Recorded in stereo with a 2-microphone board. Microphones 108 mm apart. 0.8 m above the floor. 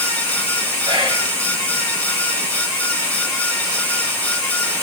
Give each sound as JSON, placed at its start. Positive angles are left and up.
{"t": 0.8, "sound": "whispering", "side_deg": -45, "distance_m": 1.3}